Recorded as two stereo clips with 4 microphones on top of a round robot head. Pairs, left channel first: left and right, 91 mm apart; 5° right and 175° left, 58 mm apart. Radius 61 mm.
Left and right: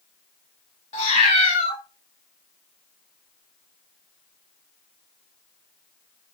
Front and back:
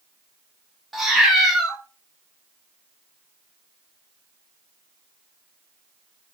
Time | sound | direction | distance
0.9 | a cat meowing | 90° left | 0.8 m